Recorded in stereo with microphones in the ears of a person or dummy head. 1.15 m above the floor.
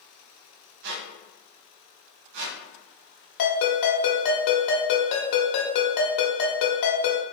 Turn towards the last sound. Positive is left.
turn(degrees=55)  # may be behind; listen again after turning